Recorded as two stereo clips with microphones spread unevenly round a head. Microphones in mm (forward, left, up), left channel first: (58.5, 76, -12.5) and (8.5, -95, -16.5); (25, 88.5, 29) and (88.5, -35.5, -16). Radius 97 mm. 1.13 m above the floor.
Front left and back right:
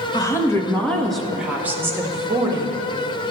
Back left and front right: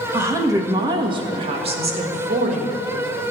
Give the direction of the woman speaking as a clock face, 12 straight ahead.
12 o'clock.